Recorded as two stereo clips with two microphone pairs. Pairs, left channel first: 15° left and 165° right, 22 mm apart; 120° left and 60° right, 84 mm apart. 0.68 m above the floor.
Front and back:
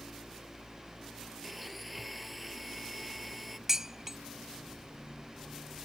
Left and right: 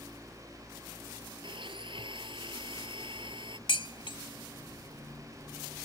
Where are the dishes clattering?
125° left.